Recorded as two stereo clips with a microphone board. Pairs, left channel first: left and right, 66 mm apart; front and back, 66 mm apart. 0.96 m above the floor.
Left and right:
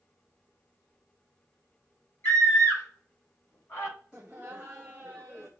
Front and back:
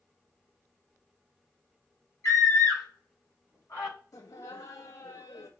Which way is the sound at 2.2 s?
40° left.